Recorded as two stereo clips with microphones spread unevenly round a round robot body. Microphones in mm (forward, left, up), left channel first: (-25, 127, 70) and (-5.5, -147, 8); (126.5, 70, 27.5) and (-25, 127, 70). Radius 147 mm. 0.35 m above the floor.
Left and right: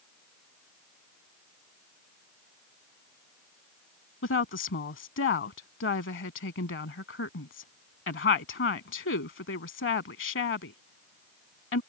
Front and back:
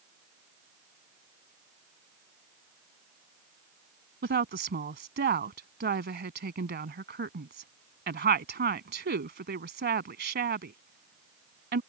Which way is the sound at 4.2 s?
145° left.